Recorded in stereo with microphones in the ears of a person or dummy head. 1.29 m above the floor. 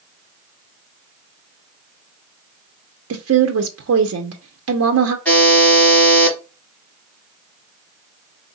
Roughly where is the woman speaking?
Right.